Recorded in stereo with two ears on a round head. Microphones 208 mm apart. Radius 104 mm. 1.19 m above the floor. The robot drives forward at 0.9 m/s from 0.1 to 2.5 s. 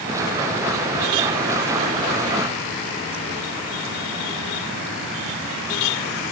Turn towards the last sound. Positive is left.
No sound to turn to.